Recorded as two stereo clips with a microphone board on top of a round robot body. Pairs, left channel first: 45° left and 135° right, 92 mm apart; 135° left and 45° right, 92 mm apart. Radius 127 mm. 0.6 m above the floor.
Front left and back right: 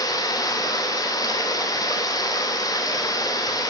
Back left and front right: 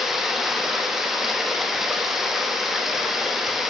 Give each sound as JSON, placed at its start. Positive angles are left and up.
{"t": 0.0, "sound": "running water", "azimuth_deg": 40, "distance_m": 1.0}